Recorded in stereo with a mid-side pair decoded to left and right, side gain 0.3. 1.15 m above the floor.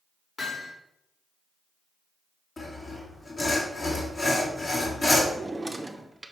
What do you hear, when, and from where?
0.4 s hammering: 55° left, 3 m
2.6 s sawing: 45° left, 2 m
5.3 s a drawer: 25° right, 0.9 m